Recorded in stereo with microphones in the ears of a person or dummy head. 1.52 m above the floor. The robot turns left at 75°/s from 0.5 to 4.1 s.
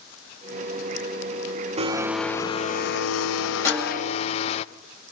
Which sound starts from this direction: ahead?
A snare drum, at 3.6 s.